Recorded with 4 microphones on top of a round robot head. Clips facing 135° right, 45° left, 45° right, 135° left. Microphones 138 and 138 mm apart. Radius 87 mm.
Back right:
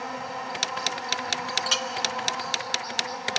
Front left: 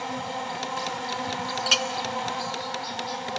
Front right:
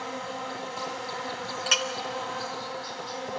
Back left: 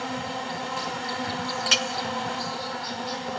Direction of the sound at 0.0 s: 110° left.